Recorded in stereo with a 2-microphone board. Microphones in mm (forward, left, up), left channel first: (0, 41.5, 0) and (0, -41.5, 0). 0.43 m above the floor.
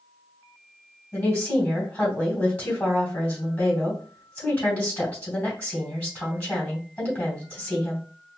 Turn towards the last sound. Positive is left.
turn(degrees=15)  # may be behind; listen again after turning